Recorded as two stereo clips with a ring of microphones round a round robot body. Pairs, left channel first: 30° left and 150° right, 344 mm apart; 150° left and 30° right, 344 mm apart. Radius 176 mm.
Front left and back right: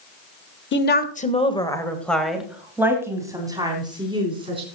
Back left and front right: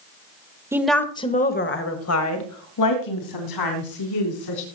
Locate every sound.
0.7 s a woman speaking: 45° left, 1.3 m; by 4.7 s 135° left, 4 m